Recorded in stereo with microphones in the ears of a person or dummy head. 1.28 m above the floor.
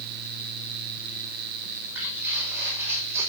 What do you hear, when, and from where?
1.6 s footsteps: 10° right (ahead or behind), 5.5 m